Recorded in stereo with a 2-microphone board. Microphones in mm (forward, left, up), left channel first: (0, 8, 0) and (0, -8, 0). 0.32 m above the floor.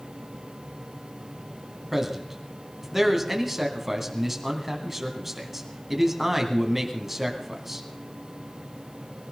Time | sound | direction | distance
1.9 | a man speaking | 20° right (ahead or behind) | 2.5 m